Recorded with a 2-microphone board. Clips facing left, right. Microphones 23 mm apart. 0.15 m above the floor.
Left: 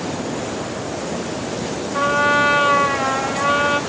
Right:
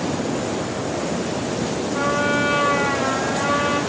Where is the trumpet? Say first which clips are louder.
Left 5 dB; 30° left (ahead or behind), 3 m.